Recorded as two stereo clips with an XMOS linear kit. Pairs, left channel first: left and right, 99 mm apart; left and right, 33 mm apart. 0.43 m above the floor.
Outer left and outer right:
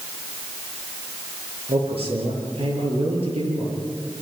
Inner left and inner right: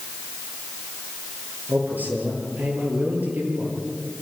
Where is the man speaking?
80° right, 9 m.